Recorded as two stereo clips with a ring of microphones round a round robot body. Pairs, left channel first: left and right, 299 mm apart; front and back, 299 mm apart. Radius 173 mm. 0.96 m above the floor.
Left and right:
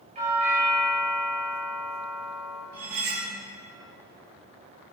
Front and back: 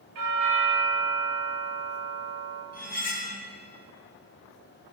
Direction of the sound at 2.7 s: 60° right.